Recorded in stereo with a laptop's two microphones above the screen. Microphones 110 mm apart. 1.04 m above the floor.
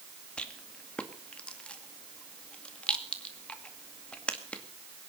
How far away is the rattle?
About 2 m.